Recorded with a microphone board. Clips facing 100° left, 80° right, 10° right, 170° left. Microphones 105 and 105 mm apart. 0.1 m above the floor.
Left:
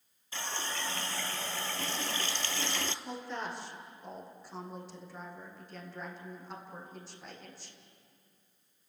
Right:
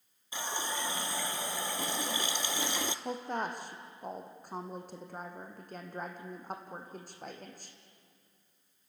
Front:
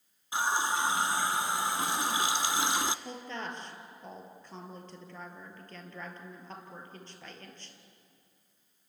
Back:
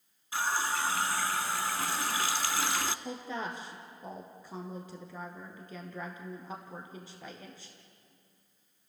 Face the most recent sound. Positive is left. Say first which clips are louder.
# right 4 dB, back 2 dB
turn(degrees=-110)